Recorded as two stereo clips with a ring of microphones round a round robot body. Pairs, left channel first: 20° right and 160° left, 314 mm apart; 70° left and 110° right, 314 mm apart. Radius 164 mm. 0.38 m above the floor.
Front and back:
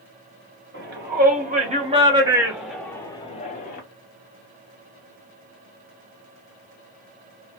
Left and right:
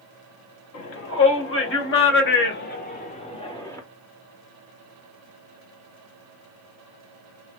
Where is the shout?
105° left, 1.8 m; by 3.8 s 5° right, 1.1 m.